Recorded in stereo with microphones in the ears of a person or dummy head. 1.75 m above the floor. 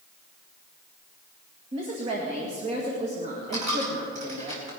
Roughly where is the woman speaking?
Right.